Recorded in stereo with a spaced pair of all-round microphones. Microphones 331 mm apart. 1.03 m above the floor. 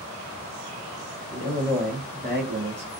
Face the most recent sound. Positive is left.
turn(degrees=-55)  # may be behind; listen again after turning